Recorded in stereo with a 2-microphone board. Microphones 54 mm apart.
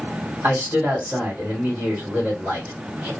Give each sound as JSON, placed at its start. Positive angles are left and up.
{"t": 0.4, "sound": "a man speaking", "side_deg": -40, "distance_m": 2.0}